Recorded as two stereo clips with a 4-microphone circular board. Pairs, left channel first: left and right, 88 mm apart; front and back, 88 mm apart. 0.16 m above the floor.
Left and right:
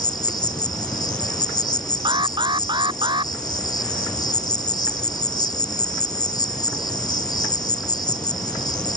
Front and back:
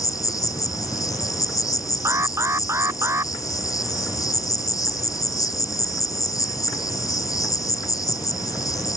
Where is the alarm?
120° right.